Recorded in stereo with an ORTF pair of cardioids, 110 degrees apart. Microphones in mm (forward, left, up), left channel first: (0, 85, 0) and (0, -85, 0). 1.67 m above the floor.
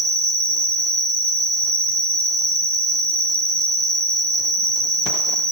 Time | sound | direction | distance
0.0 | an insect | 40° right | 0.9 m